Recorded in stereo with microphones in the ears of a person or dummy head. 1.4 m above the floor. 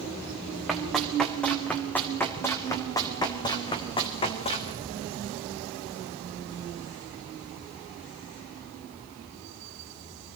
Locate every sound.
0.7 s running footsteps: centre (ahead or behind), 4 m; by 4.7 s 30° left (ahead or behind), 4 m